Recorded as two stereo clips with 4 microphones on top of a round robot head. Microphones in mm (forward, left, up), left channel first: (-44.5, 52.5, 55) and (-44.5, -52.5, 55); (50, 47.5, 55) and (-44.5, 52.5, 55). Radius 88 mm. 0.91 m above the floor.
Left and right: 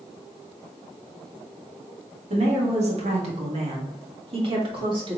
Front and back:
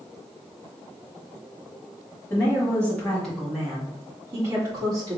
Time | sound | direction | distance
2.3 | a woman speaking | 70° right | 1.8 m